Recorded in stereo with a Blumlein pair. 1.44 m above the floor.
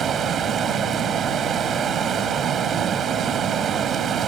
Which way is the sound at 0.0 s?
25° right.